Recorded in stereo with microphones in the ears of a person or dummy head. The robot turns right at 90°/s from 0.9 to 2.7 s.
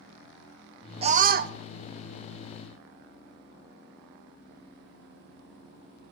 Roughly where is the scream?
Behind right.